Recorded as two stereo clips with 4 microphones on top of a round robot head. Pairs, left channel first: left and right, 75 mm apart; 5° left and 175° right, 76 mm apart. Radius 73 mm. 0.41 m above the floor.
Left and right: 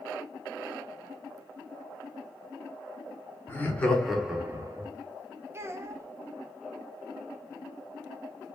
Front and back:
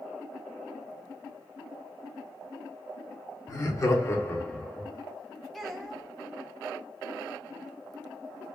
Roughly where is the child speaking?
Right.